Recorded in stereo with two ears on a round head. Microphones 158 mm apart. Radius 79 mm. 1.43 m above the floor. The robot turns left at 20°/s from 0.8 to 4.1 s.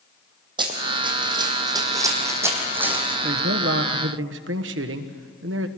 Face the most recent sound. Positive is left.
turn(degrees=-75)  # may be behind; listen again after turning